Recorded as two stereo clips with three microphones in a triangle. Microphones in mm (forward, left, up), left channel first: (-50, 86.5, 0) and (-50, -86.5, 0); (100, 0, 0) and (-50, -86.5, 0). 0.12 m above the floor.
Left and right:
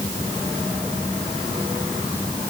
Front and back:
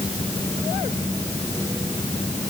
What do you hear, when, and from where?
Only background noise.